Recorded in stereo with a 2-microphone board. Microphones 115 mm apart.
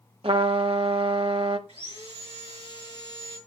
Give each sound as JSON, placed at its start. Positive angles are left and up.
{"t": 0.2, "sound": "a trumpet", "side_deg": -60, "distance_m": 0.9}
{"t": 1.7, "sound": "sawing", "side_deg": -80, "distance_m": 6.5}